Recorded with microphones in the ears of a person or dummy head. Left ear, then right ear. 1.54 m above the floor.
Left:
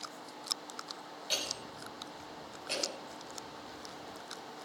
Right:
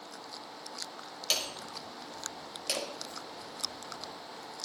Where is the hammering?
60° right (ahead or behind), 5.5 m.